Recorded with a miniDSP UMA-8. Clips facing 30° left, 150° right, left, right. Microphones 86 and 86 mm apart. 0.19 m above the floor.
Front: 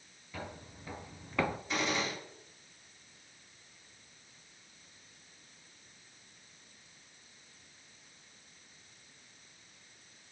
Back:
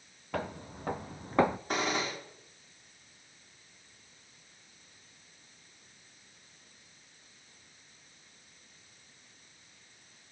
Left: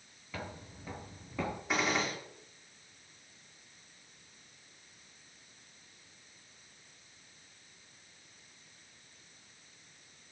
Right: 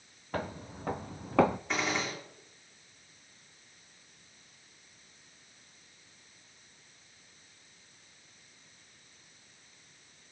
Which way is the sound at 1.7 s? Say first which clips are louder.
Back 2 dB, left 1 dB; 175° left.